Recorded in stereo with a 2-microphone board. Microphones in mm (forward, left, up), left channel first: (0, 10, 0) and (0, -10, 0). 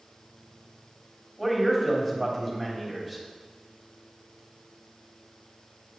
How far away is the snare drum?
I don't hear a snare drum.